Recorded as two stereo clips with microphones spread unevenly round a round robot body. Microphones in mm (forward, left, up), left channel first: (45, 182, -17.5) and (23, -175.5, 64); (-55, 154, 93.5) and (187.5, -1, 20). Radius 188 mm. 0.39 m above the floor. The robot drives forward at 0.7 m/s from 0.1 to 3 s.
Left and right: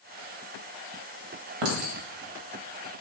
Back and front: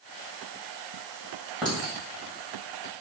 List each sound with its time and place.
1.6 s a clink: 120° right, 1.6 m; by 2.0 s 125° right, 1.7 m